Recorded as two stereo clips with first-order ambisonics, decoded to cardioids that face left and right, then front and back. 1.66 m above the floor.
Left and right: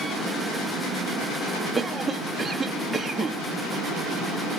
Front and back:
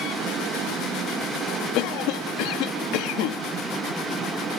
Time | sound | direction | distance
1.8 | a cough | 5° right | 1.5 m